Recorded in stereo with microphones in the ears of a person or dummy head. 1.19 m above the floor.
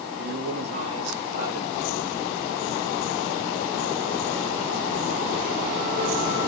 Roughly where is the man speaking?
Right.